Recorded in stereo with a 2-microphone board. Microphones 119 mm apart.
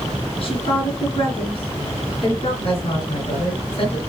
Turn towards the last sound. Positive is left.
turn(degrees=50)  # may be behind; listen again after turning